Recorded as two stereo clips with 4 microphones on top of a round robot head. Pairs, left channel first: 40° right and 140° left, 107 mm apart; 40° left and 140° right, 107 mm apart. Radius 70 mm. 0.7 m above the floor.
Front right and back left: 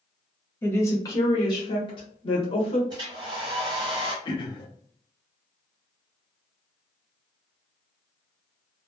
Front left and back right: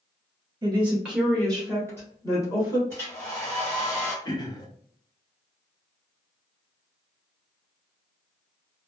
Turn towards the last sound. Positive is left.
turn(degrees=-5)